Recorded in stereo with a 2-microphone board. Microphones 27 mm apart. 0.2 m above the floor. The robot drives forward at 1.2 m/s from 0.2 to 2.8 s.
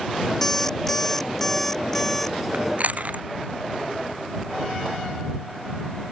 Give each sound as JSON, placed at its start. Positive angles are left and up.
{"t": 0.4, "sound": "an alarm clock", "side_deg": 15}
{"t": 2.5, "sound": "chewing", "side_deg": -60}